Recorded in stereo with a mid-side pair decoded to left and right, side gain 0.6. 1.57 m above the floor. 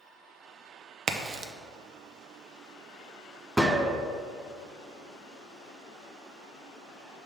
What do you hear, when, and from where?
1.1 s a crack: 40° right, 0.7 m
3.6 s a gunshot: 5° right, 0.8 m